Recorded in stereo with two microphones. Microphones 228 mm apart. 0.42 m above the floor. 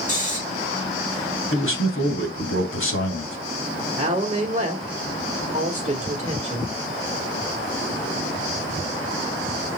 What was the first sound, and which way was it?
Snoring, 35° left (ahead or behind).